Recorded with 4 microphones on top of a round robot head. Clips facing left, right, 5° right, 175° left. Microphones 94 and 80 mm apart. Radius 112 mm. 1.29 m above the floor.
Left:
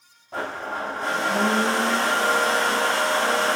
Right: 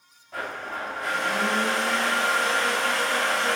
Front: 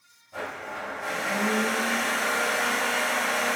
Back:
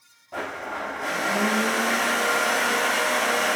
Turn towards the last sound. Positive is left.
turn(degrees=150)